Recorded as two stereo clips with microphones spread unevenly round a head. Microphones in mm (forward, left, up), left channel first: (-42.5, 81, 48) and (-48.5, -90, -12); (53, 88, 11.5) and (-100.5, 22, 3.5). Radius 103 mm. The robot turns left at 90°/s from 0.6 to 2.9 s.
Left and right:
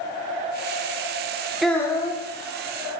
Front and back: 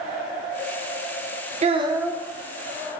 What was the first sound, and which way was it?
A child speaking, 165° left.